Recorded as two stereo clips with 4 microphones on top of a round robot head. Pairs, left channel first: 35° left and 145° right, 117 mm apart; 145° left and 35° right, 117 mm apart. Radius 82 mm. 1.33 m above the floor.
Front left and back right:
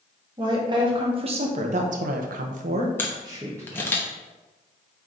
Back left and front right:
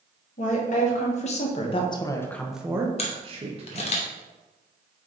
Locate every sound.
0.4 s a woman speaking: 160° left, 2 m; by 4.0 s 65° right, 1.6 m
3.0 s a camera shutter: 110° left, 0.8 m